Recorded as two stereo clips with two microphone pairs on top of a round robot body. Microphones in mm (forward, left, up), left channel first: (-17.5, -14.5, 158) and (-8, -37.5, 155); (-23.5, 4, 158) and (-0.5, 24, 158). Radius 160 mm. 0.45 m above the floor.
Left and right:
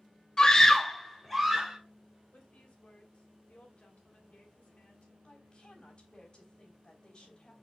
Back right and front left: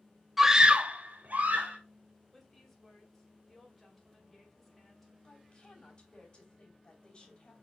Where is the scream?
110° left, 1.0 m; by 1.8 s 20° left, 2.5 m.